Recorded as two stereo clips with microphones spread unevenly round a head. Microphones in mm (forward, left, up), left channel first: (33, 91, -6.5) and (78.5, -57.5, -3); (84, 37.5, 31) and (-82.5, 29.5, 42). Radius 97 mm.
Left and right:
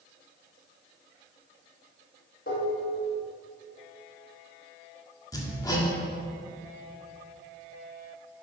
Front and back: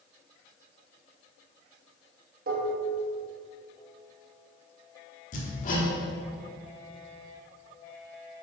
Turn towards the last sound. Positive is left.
turn(degrees=40)